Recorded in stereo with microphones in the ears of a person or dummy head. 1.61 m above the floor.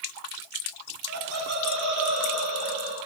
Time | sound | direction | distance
1.1 | laughter | 85° right | 8 m